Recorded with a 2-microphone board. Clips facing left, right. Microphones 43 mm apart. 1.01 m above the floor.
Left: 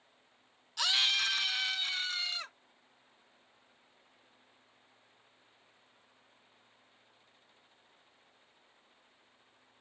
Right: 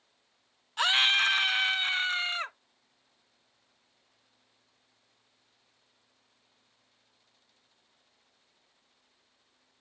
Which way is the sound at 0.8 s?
35° right (ahead or behind).